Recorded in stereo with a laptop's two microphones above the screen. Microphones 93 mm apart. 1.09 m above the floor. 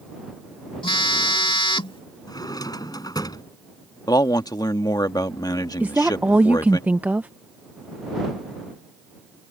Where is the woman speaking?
20° right (ahead or behind).